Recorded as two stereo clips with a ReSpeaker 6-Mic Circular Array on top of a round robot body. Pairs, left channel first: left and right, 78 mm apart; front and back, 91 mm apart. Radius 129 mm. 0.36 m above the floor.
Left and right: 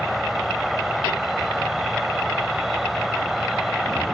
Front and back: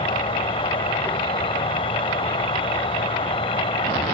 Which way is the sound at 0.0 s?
5° right.